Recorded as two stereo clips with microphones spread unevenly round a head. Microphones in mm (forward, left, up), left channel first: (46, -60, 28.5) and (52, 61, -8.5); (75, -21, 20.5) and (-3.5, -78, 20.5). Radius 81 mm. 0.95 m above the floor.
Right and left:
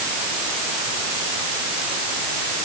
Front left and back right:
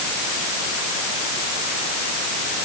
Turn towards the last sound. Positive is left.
No sound to turn to.